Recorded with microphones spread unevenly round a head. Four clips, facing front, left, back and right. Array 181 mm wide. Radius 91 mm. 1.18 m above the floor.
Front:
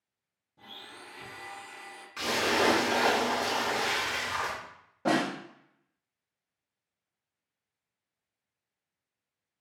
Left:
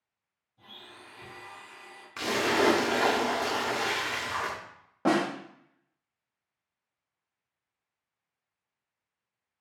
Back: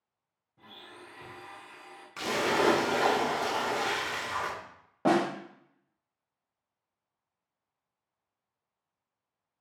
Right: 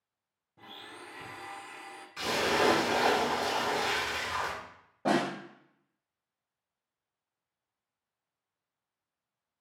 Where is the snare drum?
135° left, 0.8 m.